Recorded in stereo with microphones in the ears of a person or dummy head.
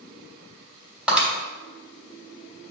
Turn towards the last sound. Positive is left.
turn(degrees=-5)  # may be behind; listen again after turning